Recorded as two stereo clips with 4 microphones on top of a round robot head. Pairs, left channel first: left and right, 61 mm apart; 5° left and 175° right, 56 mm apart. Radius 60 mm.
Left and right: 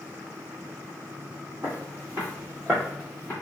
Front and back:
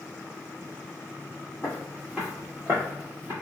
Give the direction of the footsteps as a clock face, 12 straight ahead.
2 o'clock.